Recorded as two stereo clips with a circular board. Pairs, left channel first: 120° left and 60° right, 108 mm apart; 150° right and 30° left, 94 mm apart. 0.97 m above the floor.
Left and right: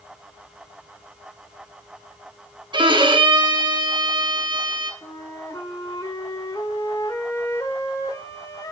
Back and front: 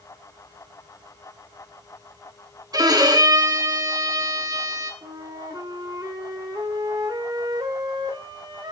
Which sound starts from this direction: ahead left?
A flute, at 5.0 s.